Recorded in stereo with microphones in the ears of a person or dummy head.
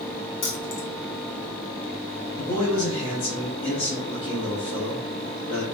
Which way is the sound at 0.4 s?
65° left (ahead or behind).